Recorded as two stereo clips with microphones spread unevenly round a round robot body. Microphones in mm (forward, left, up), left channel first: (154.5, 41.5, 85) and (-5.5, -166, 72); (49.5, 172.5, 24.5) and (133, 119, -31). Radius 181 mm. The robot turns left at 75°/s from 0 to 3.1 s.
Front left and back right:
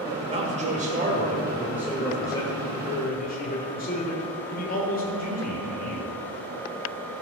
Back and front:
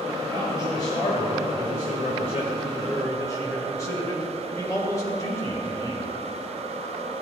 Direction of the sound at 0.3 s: 90° right.